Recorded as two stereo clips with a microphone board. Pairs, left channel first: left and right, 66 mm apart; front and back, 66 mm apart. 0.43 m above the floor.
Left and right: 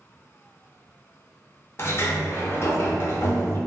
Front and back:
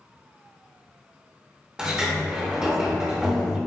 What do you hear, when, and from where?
1.8 s a sliding door: 110° left, 0.6 m